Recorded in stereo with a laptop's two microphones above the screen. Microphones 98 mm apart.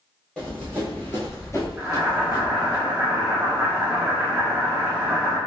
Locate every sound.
0.4 s running footsteps: 10° left (ahead or behind), 1.5 m; by 2.8 s 40° left (ahead or behind), 1.4 m
1.8 s boiling: 10° right (ahead or behind), 1.6 m